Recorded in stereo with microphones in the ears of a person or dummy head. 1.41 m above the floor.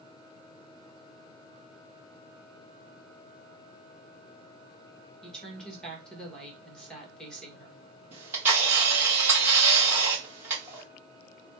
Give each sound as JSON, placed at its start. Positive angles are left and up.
{"t": 5.2, "sound": "a woman speaking", "side_deg": 0, "distance_m": 1.5}
{"t": 8.1, "sound": "a camera shutter", "side_deg": -10, "distance_m": 1.5}